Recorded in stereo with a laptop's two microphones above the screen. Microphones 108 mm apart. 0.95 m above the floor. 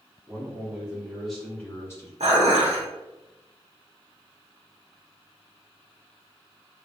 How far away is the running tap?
No running tap in this recording.